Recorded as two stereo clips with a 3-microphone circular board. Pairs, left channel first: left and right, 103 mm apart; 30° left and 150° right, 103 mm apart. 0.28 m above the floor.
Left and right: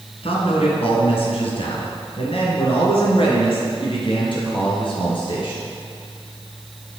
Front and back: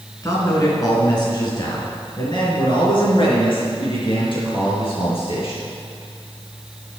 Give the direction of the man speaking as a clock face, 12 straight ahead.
9 o'clock.